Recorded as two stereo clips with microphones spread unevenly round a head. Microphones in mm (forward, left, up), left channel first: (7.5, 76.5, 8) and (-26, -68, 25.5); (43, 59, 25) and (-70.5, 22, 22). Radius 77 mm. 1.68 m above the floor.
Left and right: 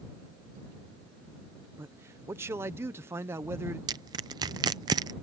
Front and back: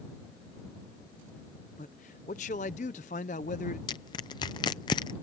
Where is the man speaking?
30° right.